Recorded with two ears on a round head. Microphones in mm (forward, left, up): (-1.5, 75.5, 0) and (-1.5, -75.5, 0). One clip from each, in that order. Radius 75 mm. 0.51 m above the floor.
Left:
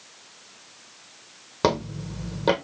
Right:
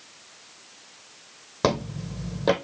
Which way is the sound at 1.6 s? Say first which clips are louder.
Left 1 dB; 5° left (ahead or behind).